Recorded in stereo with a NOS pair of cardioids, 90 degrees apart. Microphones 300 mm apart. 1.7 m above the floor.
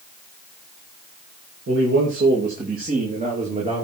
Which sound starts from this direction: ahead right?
A man speaking, at 1.7 s.